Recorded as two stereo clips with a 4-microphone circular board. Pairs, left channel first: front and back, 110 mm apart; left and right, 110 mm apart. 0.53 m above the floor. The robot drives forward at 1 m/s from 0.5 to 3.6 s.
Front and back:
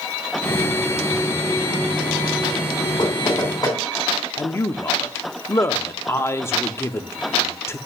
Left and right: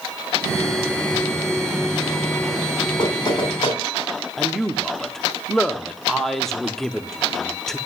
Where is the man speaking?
10° left, 0.7 m.